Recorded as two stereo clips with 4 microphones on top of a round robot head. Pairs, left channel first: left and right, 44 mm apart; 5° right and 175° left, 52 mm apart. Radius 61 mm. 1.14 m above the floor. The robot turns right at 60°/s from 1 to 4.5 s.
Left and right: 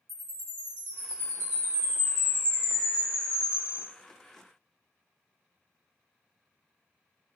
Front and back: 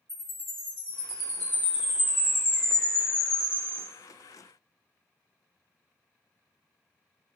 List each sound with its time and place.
0.1 s a chime: 110° right, 0.8 m; by 3.8 s 60° left, 0.8 m